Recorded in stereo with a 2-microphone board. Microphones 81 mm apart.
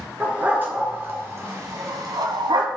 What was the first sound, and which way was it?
A dog barking, 20° right (ahead or behind).